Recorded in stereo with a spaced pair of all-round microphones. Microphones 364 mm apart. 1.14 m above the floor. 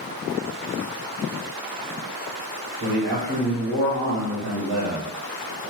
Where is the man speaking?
50° right (ahead or behind), 1.8 m.